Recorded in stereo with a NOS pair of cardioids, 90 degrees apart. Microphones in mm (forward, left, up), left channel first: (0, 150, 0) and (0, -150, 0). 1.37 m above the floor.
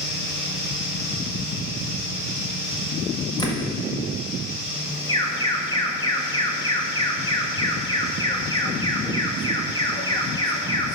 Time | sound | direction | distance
0.0 | a fan | 40° left | 3.5 m
3.4 | a door slam | 15° left | 1.6 m
5.1 | an alarm | 15° left | 1.6 m